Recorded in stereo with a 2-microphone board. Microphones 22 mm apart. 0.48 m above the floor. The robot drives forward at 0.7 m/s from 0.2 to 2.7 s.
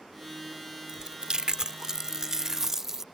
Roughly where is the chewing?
Right.